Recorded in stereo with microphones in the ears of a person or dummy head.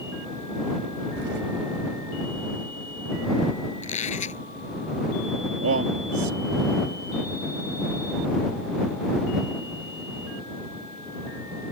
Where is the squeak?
45° left (ahead or behind).